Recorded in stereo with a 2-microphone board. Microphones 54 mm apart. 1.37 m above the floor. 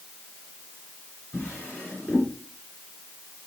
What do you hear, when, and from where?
1.3 s a drawer: 20° left (ahead or behind), 4.5 m